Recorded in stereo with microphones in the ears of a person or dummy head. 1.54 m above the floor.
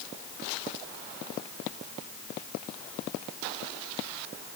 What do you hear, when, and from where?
Only background noise.